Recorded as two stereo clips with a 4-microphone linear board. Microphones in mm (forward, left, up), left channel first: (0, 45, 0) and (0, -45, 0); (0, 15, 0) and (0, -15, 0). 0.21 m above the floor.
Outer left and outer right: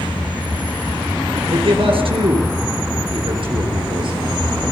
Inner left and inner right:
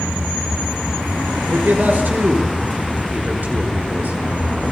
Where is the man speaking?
70° right (ahead or behind), 4 m; by 4.2 s 60° right (ahead or behind), 4.5 m.